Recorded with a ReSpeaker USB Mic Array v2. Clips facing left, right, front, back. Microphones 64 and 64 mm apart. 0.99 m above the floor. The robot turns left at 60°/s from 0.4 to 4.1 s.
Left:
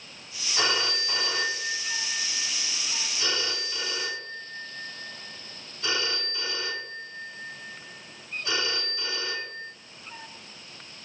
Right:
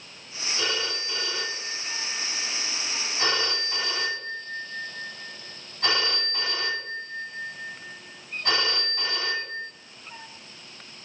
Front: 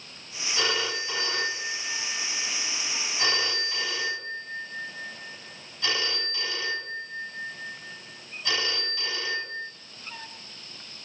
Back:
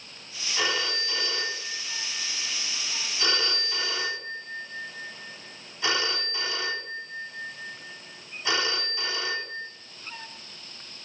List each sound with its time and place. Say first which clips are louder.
0.6 s a phone ringing: left 3 dB, even; 100° left, 5 m; by 9.7 s 110° right, 5 m